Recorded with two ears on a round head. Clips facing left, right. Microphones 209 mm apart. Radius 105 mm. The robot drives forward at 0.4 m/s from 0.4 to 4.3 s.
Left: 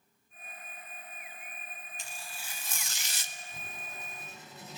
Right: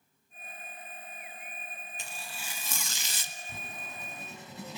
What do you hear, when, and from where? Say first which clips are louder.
2.0 s tearing paper: right 3 dB; 50° right (ahead or behind), 1.3 m; by 3.4 s 70° right (ahead or behind), 1.1 m
3.5 s writing: right 4 dB; 50° right (ahead or behind), 5.5 m; by 4.8 s 55° right (ahead or behind), 5.5 m